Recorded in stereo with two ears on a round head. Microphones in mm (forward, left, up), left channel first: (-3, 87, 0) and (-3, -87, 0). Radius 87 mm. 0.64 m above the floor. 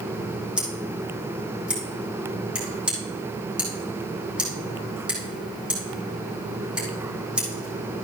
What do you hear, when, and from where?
0.6 s scissors: 5° right (ahead or behind), 4 m